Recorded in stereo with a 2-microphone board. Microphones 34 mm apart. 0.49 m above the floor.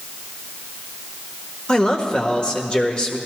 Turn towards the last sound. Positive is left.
turn(degrees=30)  # may be behind; listen again after turning